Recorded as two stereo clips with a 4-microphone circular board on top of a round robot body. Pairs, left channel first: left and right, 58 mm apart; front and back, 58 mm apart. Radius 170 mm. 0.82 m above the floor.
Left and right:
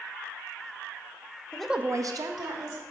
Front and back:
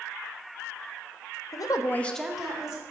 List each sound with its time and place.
1.5 s a woman speaking: 15° left, 0.7 m; by 2.8 s 105° right, 1.6 m